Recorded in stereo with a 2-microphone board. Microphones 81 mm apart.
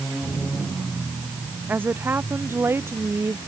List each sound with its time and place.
1.7 s a woman speaking: 25° right (ahead or behind); by 3.4 s 35° right (ahead or behind)